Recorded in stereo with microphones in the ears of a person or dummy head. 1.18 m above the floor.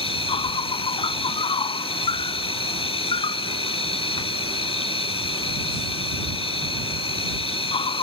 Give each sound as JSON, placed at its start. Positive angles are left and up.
{"t": 0.0, "sound": "an insect", "side_deg": 35}